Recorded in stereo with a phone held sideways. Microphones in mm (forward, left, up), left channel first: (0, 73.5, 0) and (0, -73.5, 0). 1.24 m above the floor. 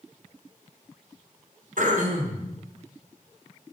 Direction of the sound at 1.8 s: 70° right (ahead or behind).